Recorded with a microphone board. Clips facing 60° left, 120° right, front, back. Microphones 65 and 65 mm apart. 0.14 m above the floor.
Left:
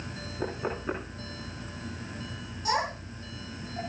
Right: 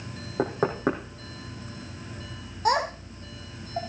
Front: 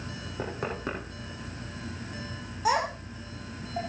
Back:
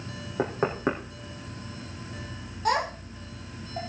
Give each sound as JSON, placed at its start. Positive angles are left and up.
{"t": 0.4, "sound": "knocking", "azimuth_deg": -115, "distance_m": 4.0}
{"t": 2.6, "sound": "a child speaking", "azimuth_deg": -80, "distance_m": 4.0}